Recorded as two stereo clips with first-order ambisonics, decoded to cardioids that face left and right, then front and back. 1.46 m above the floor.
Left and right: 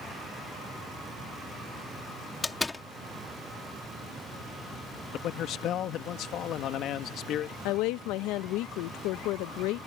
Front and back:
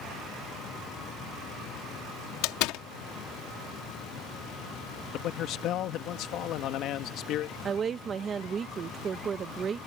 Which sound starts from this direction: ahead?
A door slam, at 2.4 s.